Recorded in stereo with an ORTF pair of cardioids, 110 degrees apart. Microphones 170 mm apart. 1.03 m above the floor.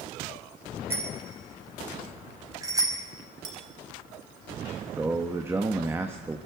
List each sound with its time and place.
0.9 s a bicycle bell: 15° right, 6 m; by 3.0 s 25° right, 4 m
3.4 s a clink: 5° right, 7 m
5.0 s a man speaking: 15° right, 1.3 m